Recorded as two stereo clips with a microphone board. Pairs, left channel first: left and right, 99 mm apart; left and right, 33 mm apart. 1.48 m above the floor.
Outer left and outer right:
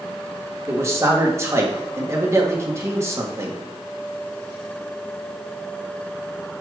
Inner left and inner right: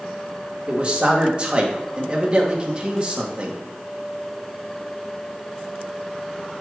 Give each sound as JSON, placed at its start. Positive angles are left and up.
{"t": 0.7, "sound": "a man speaking", "side_deg": -30, "distance_m": 1.5}